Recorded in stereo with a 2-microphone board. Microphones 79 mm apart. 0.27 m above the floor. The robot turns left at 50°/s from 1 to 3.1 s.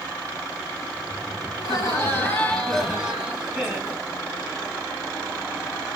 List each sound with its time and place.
1.6 s laughter: 65° left, 2 m; by 4.0 s 10° right, 2 m